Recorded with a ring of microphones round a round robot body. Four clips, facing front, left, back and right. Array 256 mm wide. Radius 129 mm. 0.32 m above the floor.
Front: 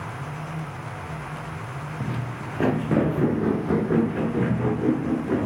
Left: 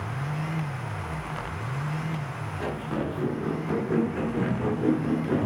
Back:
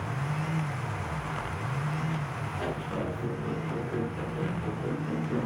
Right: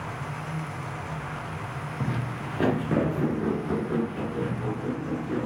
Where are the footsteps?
50° right, 2 m; by 5.5 s 35° left, 3.5 m.